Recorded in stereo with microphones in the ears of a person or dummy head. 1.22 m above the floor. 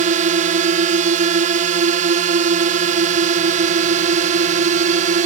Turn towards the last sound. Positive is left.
turn(degrees=-45)  # may be behind; listen again after turning